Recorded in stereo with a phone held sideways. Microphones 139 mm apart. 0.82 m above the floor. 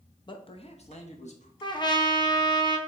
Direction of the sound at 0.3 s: 30° left (ahead or behind).